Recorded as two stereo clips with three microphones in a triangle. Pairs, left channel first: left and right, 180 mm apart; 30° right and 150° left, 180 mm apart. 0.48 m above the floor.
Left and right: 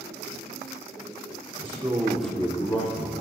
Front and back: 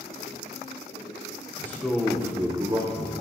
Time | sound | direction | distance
1.6 | a man speaking | 95° right | 1.0 m